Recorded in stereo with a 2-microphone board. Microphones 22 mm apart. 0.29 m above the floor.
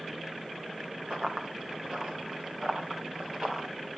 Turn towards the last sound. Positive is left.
turn(degrees=-40)  # may be behind; listen again after turning